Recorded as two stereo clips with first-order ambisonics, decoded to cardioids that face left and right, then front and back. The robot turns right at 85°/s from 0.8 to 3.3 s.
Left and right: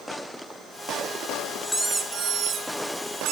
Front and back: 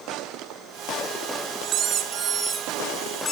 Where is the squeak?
160° left, 1.7 m; by 3.3 s 60° right, 1.7 m.